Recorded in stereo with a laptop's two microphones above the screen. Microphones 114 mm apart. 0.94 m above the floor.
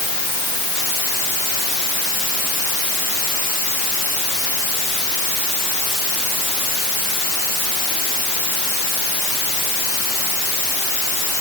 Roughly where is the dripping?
No dripping in this recording.